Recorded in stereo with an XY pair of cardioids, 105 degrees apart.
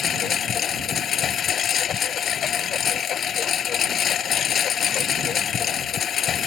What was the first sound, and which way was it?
A lawn mower, 55° left.